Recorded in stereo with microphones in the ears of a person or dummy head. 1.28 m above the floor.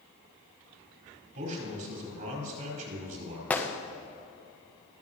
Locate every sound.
1.4 s a man speaking: 50° right (ahead or behind), 4 m
3.5 s a gunshot: 10° left (ahead or behind), 0.6 m